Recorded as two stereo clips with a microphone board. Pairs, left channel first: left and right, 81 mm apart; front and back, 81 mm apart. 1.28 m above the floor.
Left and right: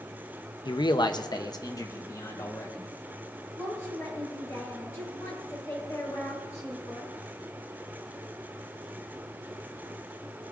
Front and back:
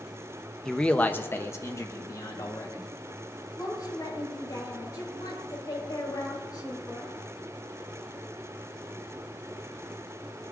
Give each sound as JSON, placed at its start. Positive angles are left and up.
{"t": 0.7, "sound": "a man speaking", "azimuth_deg": 85, "distance_m": 0.6}
{"t": 3.5, "sound": "a woman speaking", "azimuth_deg": 40, "distance_m": 5.0}